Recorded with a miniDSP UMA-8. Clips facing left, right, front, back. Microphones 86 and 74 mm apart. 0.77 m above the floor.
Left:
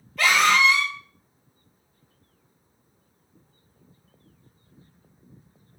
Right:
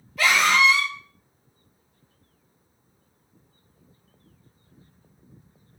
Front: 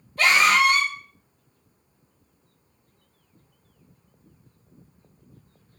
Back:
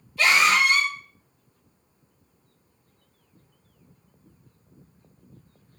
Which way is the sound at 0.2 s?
5° right.